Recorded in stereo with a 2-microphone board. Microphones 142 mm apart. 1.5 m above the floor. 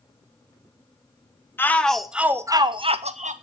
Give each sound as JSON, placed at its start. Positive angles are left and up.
{"t": 1.6, "sound": "a shout", "side_deg": 15, "distance_m": 1.0}